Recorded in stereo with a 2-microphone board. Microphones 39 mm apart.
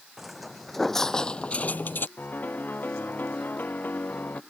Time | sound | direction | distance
0.2 | footsteps | 5° right (ahead or behind) | ?
2.2 | a piano | 55° left (ahead or behind) | ?